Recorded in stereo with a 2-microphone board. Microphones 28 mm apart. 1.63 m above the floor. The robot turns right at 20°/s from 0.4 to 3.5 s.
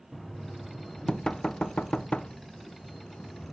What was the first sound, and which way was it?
Knocking, 15° left (ahead or behind).